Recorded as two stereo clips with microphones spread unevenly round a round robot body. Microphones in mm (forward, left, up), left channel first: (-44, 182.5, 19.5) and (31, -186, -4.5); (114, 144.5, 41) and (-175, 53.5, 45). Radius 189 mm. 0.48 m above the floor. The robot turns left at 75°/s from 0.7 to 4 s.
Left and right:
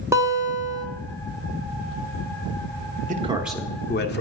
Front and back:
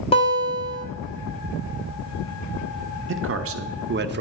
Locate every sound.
0.1 s a guitar: 20° right, 1.2 m; by 0.8 s 30° right, 1.2 m
3.1 s a man speaking: 135° right, 1.0 m; by 4.2 s 160° left, 1.0 m